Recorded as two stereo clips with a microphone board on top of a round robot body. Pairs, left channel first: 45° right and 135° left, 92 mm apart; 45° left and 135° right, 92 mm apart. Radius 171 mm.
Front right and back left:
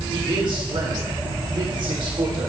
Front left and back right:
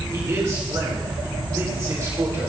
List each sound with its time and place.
0.1 s a man speaking: 170° left, 3.5 m